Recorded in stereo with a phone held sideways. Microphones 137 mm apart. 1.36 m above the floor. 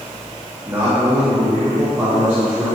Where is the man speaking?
15° right (ahead or behind), 3 m.